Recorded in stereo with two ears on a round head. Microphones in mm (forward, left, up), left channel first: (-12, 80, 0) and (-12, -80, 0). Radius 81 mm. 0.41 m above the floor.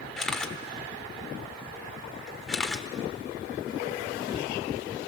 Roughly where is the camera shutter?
Centre.